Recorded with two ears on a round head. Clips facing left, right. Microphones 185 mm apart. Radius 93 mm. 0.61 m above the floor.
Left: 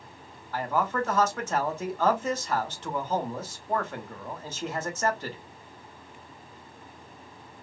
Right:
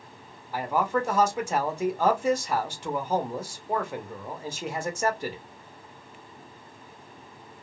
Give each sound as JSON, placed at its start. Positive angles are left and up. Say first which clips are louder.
{"t": 0.5, "sound": "a man speaking", "louder": "right 2 dB", "side_deg": -10, "distance_m": 0.7}